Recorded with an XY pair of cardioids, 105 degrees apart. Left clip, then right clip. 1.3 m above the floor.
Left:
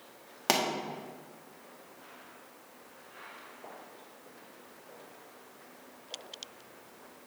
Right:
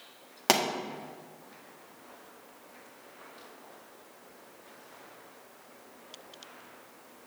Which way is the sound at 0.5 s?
15° right.